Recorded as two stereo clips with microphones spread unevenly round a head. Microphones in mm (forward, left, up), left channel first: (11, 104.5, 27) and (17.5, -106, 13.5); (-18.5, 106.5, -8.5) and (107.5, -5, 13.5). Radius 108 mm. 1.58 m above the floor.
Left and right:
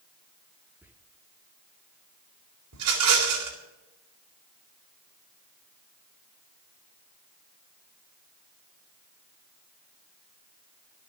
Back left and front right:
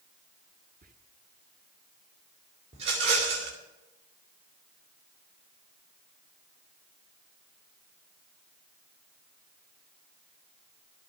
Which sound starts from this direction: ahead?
Whispering, at 0.8 s.